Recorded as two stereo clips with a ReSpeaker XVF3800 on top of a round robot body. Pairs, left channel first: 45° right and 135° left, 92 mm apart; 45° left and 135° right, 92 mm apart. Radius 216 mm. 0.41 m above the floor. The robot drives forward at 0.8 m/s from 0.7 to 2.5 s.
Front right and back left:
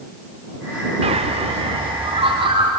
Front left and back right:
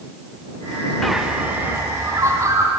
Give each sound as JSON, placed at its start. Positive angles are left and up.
{"t": 1.0, "sound": "a bird", "azimuth_deg": 130, "distance_m": 0.5}